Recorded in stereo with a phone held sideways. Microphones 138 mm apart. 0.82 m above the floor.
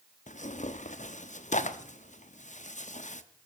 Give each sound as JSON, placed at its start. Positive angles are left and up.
{"t": 0.3, "sound": "tearing paper", "side_deg": 55, "distance_m": 0.8}